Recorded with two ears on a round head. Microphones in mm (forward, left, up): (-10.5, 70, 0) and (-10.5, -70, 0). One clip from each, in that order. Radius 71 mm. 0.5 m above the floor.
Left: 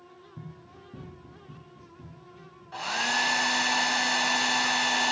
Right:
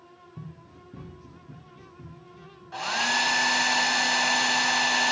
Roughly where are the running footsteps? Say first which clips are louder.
Even; centre.